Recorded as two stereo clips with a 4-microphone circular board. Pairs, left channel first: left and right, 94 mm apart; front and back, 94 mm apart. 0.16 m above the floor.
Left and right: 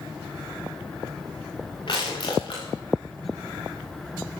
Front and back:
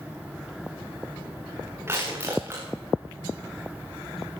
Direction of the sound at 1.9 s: 120° left.